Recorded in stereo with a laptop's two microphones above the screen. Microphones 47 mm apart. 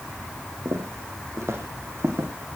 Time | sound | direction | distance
0.7 | footsteps | 70° right (ahead or behind) | 3 m